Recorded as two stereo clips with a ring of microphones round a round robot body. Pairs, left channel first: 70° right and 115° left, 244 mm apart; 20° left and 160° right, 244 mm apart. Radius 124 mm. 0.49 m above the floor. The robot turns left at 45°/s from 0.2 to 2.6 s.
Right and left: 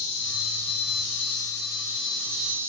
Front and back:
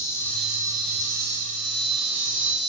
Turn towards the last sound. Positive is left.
turn(degrees=-165)